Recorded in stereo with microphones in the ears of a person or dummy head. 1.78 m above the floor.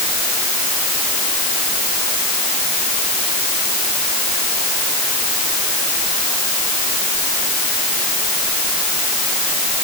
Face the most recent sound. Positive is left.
No sound to turn to.